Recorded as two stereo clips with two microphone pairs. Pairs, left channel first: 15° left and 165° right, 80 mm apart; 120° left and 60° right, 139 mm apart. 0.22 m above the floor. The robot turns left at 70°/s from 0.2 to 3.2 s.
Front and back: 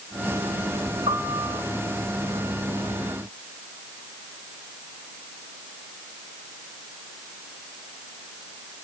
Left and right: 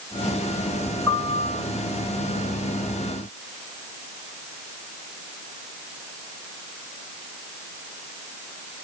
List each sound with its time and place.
1.1 s a piano: 165° right, 8.5 m; by 1.6 s 155° left, 8.5 m